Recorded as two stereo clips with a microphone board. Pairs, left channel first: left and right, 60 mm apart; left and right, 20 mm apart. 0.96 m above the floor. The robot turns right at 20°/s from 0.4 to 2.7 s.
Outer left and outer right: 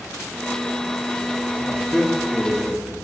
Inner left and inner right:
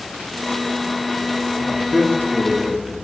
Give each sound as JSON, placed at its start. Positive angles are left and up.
{"t": 1.7, "sound": "a man speaking", "side_deg": 10, "distance_m": 1.1}